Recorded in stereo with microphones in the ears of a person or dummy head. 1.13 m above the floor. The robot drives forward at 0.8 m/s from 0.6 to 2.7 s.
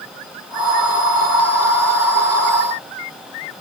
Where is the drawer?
I don't hear a drawer.